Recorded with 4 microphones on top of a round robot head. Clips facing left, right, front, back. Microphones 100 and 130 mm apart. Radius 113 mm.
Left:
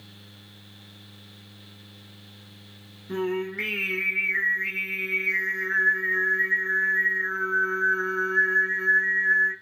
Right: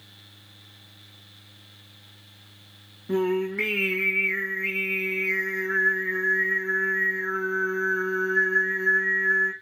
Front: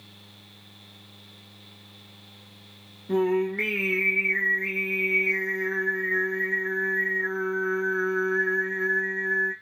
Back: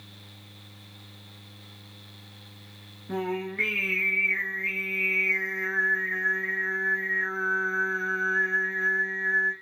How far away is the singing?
About 0.9 m.